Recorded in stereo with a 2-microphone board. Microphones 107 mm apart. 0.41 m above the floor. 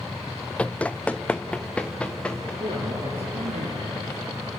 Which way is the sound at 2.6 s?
70° right (ahead or behind).